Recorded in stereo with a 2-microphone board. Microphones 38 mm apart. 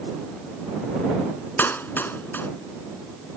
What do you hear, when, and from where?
1.6 s a clap: 75° left (ahead or behind)